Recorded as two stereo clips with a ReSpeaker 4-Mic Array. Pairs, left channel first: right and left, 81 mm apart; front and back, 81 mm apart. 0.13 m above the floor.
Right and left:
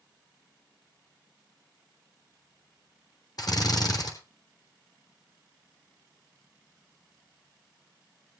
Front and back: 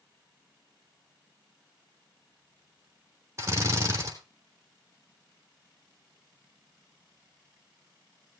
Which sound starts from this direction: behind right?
A drill, at 3.4 s.